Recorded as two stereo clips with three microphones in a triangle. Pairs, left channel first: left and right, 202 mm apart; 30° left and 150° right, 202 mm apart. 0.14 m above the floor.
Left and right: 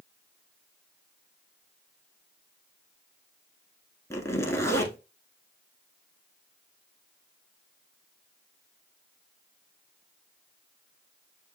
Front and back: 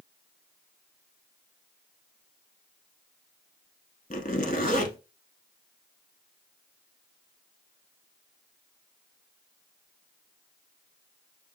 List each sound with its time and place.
4.1 s a zipper: 20° left, 0.8 m